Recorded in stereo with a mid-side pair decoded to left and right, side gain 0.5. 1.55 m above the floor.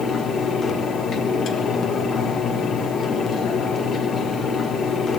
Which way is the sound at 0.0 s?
50° left.